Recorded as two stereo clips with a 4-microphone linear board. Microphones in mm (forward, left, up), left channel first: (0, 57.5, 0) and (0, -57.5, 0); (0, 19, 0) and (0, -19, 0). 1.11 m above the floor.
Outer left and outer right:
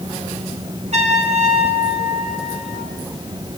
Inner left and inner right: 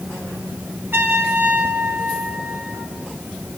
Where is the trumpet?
85° right, 6.5 m.